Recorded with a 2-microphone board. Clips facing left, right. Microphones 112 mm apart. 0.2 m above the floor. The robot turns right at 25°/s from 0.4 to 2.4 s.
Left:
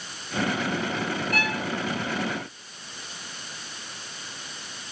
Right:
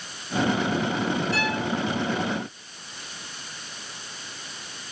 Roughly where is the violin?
Left.